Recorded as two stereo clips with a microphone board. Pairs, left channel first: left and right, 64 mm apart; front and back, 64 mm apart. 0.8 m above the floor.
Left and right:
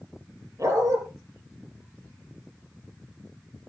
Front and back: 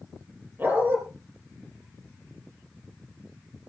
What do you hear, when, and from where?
0.6 s a dog barking: 125° right, 4 m